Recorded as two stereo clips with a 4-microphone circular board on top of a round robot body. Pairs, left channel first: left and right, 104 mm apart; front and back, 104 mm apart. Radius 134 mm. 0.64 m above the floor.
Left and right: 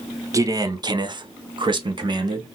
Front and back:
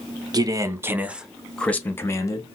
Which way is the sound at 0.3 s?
140° right.